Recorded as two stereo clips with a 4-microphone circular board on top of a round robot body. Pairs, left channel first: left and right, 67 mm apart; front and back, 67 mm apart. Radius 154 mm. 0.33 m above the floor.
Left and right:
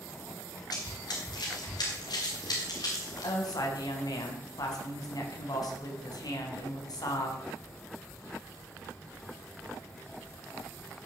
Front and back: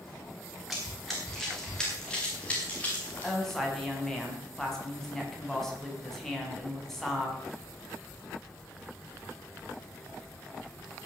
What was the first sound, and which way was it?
Running footsteps, 90° left.